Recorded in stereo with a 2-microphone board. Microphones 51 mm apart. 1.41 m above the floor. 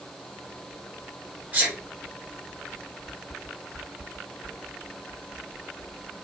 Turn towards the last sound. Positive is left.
turn(degrees=-30)  # may be behind; listen again after turning